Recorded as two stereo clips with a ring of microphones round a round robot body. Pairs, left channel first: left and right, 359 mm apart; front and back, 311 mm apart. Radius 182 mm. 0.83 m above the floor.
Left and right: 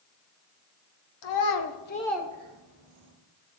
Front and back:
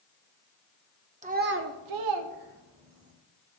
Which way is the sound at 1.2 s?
110° left.